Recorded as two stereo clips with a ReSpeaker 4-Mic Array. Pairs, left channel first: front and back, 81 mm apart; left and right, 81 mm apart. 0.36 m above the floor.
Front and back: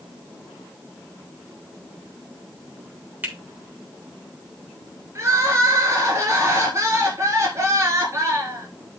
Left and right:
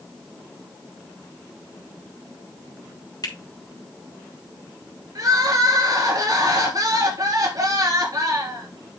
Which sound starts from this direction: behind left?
A finger snap, at 3.2 s.